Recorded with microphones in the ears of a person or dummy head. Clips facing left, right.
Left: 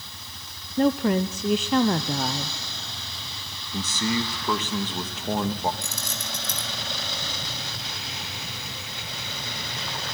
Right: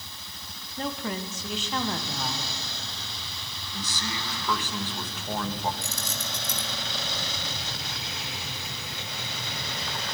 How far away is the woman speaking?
About 0.8 m.